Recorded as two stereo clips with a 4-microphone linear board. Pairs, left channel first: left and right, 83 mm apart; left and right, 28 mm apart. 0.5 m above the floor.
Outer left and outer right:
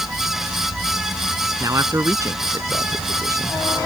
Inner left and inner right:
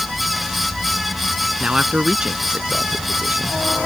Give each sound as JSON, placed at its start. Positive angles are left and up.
{"t": 1.6, "sound": "a man speaking", "side_deg": -35}